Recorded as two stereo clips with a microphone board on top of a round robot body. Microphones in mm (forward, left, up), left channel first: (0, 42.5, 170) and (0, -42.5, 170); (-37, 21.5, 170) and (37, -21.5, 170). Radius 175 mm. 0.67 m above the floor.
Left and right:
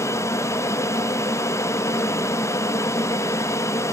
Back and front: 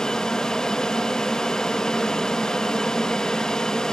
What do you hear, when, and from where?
0.0 s an aircraft: 70° left